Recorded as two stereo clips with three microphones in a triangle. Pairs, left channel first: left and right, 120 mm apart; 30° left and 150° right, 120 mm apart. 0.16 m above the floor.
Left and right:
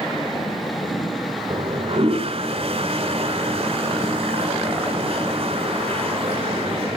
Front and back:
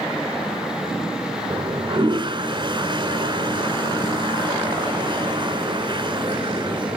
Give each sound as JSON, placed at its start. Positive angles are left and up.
{"t": 1.5, "sound": "a toilet flushing", "azimuth_deg": -110, "distance_m": 1.6}